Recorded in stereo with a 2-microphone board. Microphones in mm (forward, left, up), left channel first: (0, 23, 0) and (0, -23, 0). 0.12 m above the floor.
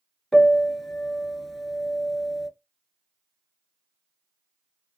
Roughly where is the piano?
Centre.